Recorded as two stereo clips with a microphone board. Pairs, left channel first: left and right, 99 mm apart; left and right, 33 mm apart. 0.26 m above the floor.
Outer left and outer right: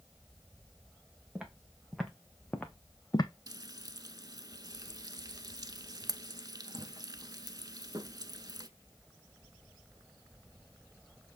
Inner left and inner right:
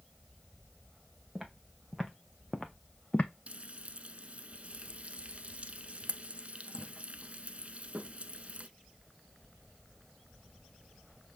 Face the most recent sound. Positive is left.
turn(degrees=-45)  # may be behind; listen again after turning